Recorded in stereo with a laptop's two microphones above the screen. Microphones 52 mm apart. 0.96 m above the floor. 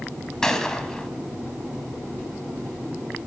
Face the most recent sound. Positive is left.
turn(degrees=10)  # may be behind; listen again after turning